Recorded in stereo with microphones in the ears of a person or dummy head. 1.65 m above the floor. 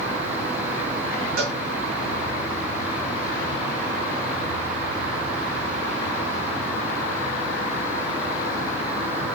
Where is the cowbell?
80° right, 3 m.